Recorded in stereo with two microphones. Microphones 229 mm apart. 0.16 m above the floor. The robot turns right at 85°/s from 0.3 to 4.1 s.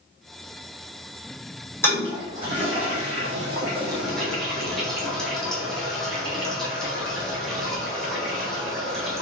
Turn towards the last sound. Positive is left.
turn(degrees=0)  # may be behind; listen again after turning